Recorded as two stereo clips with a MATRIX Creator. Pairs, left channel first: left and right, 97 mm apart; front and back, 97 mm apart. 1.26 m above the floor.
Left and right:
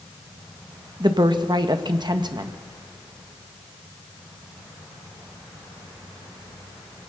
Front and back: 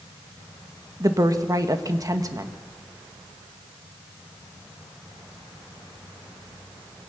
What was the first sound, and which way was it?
A woman speaking, 130° right.